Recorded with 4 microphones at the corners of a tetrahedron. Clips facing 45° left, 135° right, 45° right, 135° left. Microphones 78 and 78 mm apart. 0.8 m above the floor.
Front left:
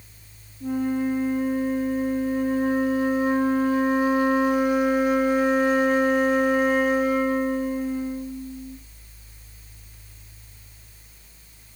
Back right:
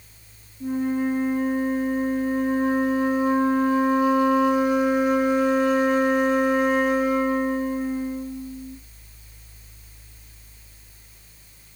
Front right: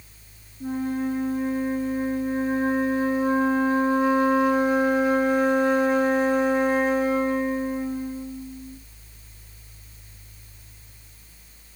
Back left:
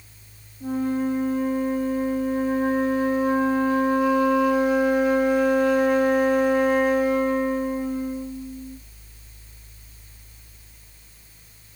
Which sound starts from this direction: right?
A flute, at 0.6 s.